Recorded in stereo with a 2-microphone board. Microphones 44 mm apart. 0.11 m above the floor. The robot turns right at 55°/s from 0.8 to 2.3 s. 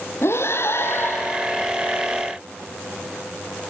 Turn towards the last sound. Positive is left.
turn(degrees=-165)